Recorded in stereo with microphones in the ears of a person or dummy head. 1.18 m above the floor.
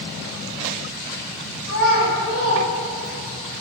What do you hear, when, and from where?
1.6 s a child speaking: 55° left (ahead or behind), 1.4 m; by 3.4 s 15° left (ahead or behind), 2 m